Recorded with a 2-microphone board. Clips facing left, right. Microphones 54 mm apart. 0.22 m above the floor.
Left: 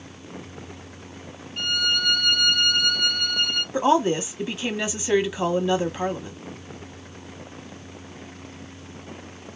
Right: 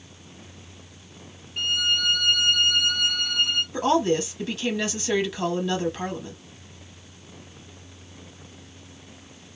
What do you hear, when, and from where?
1.6 s a violin: 15° right (ahead or behind), 1.1 m
3.7 s a woman speaking: 15° left (ahead or behind), 1.1 m